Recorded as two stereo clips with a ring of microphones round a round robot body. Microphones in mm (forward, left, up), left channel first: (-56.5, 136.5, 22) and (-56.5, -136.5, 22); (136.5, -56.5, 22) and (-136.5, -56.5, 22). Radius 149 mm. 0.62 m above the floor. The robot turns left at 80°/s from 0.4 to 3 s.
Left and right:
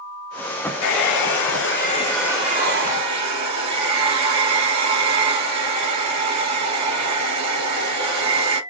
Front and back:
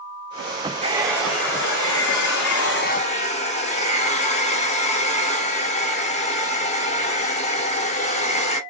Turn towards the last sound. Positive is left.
turn(degrees=-65)